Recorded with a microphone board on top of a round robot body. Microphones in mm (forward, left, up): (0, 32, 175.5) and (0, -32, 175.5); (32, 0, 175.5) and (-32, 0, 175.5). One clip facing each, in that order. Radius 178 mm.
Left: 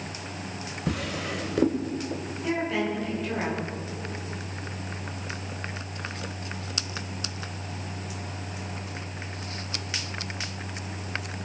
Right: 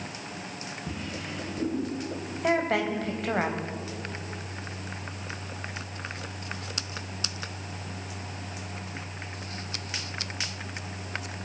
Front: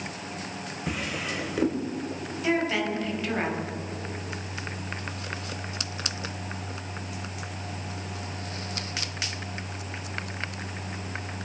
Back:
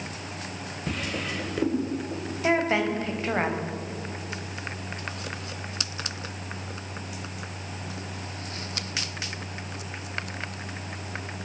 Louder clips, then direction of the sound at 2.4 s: Right 2 dB, back 2 dB; 120° right.